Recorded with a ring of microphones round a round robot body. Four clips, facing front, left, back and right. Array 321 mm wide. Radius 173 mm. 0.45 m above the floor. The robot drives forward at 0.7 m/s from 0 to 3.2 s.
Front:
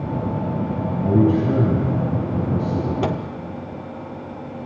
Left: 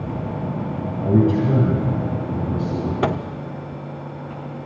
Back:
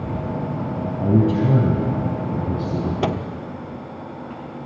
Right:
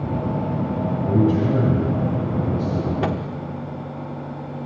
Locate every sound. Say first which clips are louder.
1.0 s a man speaking: left 2 dB, front 1 dB; 155° left, 4.5 m; by 2.9 s 160° left, 5.5 m
3.0 s a microwave: left 6 dB, back 3 dB; 105° left, 0.8 m; by 3.2 s 120° left, 0.9 m